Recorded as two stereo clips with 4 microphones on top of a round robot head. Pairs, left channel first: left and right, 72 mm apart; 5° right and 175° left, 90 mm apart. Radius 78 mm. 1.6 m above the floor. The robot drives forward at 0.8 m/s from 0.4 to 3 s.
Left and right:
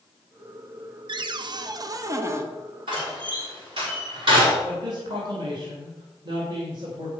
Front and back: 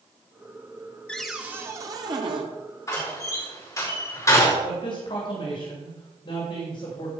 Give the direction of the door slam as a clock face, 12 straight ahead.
2 o'clock.